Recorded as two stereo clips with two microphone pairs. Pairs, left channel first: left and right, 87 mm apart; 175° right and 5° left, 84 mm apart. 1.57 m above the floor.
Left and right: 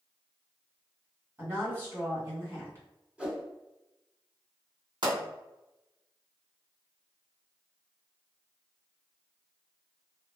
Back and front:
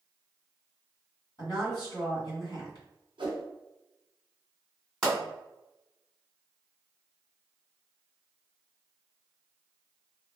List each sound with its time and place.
1.4 s a woman speaking: 145° right, 1.9 m
3.2 s a whoosh: 10° right, 0.7 m
5.0 s a pop: 95° right, 2.0 m